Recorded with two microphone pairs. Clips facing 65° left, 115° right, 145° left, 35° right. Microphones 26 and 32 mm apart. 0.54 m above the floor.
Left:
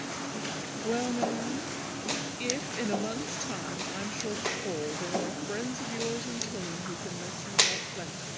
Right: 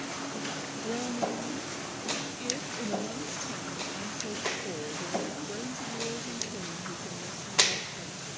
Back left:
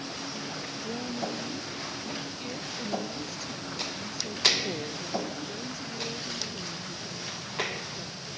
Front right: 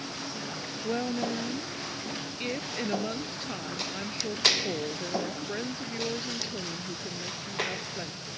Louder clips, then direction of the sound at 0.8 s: Left 3 dB, front right 5 dB; 15° left.